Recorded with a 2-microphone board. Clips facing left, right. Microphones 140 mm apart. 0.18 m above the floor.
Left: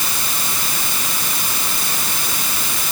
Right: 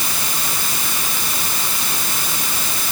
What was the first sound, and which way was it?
Only background noise.